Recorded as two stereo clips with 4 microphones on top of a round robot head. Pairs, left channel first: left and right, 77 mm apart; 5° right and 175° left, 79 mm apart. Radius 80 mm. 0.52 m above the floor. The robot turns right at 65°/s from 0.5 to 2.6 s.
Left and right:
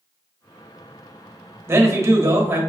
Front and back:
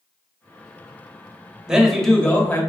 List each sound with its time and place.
1.7 s a man speaking: 110° right, 1.1 m; by 2.6 s 50° right, 1.1 m